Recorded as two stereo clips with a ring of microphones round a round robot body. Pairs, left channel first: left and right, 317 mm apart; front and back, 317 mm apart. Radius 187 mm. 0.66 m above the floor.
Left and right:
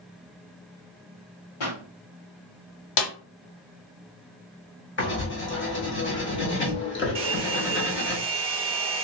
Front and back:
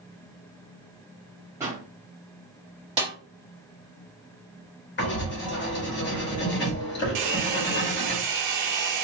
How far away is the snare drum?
About 0.7 m.